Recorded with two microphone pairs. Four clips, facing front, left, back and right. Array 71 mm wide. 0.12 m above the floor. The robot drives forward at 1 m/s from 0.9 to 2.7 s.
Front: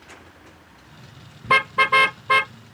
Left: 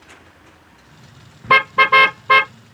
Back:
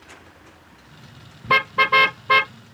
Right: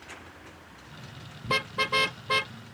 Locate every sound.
1.4 s a car horn: 85° left; by 2.5 s 95° left